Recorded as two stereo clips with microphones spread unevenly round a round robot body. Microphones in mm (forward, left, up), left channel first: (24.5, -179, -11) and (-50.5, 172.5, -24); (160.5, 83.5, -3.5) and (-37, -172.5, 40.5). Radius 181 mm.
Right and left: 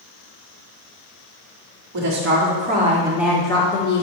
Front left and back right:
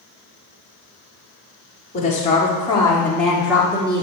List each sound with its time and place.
1.9 s a woman speaking: 105° left, 1.7 m; by 4.0 s 50° right, 1.4 m